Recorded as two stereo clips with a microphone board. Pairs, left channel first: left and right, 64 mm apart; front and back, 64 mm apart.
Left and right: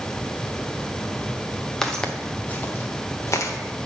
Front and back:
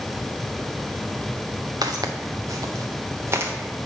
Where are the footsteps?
175° left, 1.0 m; by 3.5 s 125° left, 1.2 m.